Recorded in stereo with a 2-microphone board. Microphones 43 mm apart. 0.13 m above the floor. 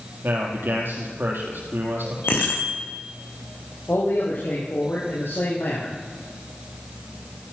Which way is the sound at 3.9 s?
75° left (ahead or behind).